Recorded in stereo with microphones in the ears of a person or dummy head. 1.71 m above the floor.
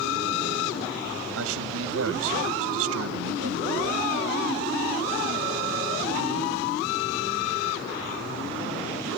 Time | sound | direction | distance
1.4 | a man speaking | 85° right | ?